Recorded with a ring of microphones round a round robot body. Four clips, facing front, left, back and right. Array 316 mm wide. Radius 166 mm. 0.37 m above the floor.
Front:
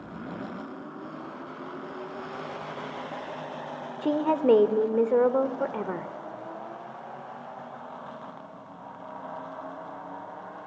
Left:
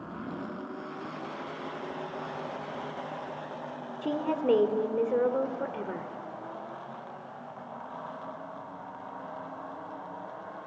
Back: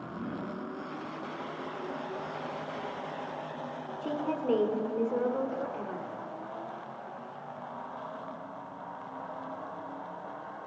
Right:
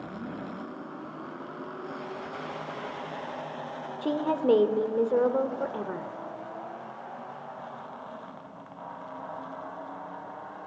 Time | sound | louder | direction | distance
4.0 | a woman speaking | right 2 dB, front 9 dB | 15° right | 1.2 m